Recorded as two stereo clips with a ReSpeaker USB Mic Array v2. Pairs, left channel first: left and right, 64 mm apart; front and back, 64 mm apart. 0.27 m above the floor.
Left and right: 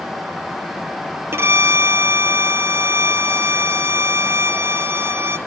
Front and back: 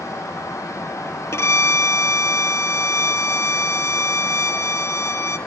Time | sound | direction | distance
1.3 | a violin | 40° right | 0.9 m